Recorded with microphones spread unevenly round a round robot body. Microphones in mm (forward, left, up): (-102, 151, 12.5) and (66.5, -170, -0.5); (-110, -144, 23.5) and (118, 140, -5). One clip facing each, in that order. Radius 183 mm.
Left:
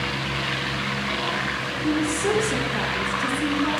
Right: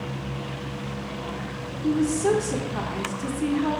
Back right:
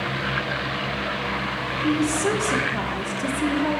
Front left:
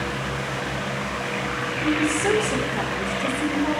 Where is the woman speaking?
145° right, 1.1 m.